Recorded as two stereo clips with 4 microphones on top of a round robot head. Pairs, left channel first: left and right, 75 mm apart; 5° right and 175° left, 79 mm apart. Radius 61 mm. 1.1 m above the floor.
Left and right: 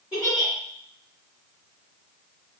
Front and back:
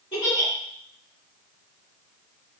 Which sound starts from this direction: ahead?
A giggle, at 0.1 s.